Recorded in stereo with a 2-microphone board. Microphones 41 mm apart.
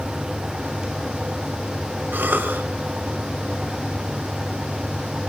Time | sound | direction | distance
2.1 | a cough | 50° right (ahead or behind) | 2.5 m